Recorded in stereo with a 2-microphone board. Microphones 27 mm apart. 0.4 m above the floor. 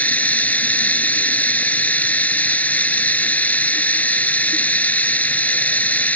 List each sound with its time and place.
0.0 s running water: 85° left